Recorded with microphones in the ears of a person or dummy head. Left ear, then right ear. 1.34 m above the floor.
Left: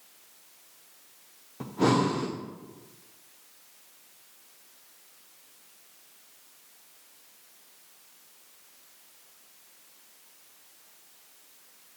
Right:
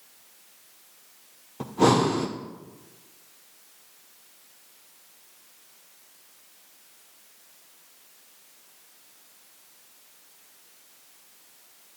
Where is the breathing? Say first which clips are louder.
Right 4 dB; 15° right (ahead or behind), 0.6 m.